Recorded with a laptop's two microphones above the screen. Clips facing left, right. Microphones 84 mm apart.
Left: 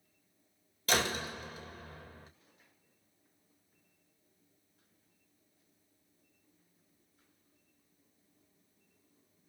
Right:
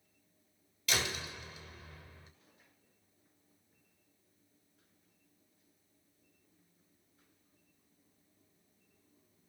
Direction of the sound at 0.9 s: 40° left (ahead or behind).